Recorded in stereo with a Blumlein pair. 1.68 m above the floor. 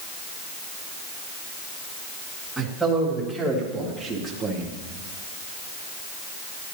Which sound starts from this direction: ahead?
A man speaking, at 2.6 s.